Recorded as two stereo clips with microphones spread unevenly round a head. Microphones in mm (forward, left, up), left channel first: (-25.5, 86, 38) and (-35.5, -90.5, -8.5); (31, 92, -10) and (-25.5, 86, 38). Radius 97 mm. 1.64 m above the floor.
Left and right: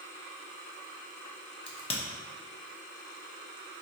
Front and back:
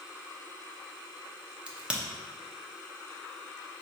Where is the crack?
135° left, 0.8 m.